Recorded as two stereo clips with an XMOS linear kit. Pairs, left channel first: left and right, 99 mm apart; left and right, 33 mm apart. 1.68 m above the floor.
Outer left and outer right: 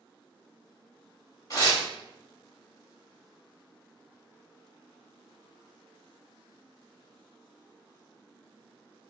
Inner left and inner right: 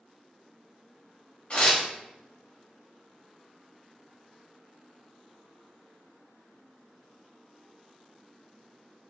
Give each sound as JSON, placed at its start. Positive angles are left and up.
{"t": 1.5, "sound": "tearing paper", "side_deg": 35, "distance_m": 2.0}